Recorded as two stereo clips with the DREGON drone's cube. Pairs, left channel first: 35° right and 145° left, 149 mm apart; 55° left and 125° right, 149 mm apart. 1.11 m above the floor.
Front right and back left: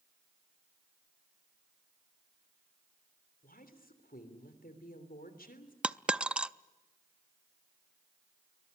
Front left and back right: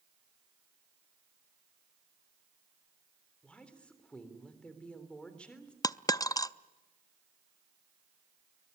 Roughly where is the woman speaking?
Ahead right.